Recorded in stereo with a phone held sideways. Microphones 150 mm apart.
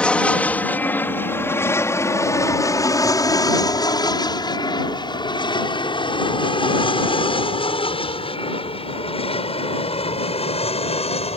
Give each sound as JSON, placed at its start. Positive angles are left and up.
{"t": 0.0, "sound": "an aircraft", "side_deg": 5}